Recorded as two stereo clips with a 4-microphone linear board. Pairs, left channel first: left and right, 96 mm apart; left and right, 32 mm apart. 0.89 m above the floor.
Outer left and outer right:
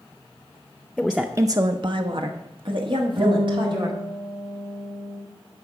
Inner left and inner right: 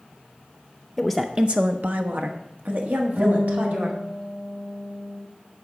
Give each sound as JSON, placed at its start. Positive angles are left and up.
{"t": 1.0, "sound": "a woman speaking", "side_deg": 5, "distance_m": 0.5}
{"t": 3.2, "sound": "a guitar", "side_deg": -85, "distance_m": 3.0}